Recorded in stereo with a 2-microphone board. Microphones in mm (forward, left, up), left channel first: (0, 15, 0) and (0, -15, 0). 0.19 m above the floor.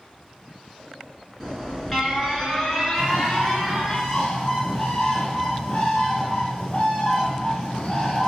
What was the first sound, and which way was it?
An alarm, 5° left (ahead or behind).